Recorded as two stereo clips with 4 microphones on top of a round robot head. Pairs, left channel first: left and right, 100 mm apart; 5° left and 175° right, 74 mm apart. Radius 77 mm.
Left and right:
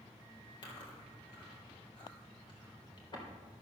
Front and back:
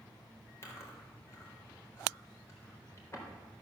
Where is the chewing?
55° left, 3.5 m.